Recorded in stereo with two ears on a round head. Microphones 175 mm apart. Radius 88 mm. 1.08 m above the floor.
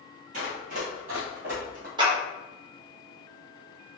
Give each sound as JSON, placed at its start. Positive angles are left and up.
{"t": 0.3, "sound": "running footsteps", "side_deg": -40, "distance_m": 1.5}
{"t": 2.0, "sound": "a clap", "side_deg": -25, "distance_m": 0.9}